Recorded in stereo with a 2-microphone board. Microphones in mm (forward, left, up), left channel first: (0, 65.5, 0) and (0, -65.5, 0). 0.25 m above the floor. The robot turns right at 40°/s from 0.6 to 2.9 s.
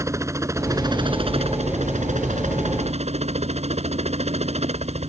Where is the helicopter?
155° right; by 5.1 s 65° right.